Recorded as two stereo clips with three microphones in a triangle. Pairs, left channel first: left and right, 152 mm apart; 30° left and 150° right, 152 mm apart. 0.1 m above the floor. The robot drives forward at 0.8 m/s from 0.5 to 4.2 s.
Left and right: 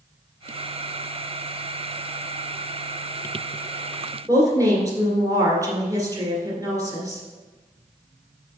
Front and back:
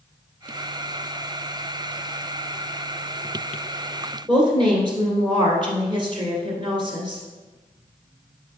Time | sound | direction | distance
4.3 | a woman speaking | 135° right | 1.6 m